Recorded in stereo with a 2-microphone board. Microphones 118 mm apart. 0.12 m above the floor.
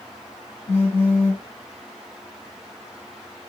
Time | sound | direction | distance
0.7 | a phone buzzing | 15° left (ahead or behind) | 1.8 m